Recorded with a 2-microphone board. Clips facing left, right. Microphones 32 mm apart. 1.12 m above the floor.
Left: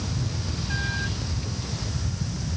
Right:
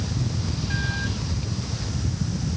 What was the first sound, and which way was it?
Only background noise.